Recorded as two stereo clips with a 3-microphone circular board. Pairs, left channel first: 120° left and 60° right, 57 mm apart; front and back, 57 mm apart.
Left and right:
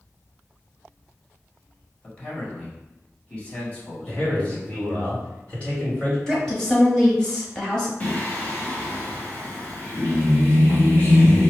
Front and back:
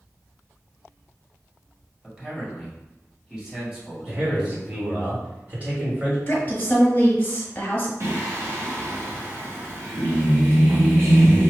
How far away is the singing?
About 1.7 m.